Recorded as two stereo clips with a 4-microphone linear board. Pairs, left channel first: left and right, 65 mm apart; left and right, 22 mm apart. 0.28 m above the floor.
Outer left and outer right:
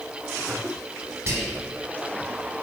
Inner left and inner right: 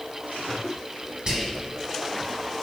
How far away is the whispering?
About 1.8 m.